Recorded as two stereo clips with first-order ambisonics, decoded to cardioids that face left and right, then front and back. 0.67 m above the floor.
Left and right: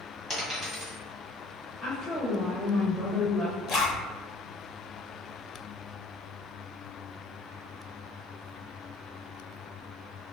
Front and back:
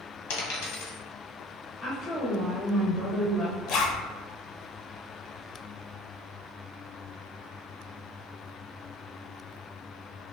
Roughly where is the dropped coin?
Ahead.